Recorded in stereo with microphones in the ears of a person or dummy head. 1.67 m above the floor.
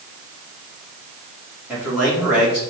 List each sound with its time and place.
1.7 s a man speaking: 10° right (ahead or behind), 1.5 m